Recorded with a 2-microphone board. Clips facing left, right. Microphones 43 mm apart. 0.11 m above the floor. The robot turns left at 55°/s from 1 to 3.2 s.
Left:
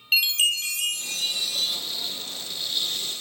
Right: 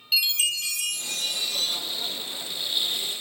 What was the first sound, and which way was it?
A chime, 45° left.